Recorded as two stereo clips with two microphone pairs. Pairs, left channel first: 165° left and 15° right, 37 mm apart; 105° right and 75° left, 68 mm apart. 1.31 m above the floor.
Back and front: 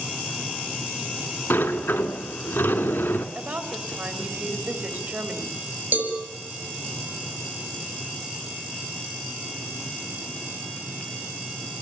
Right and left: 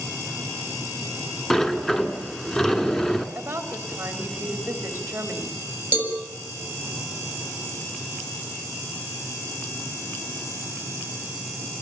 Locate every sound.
1.5 s a sliding door: 175° left, 2 m
3.4 s a woman speaking: 15° left, 3.5 m
5.9 s a cowbell: 10° left, 7 m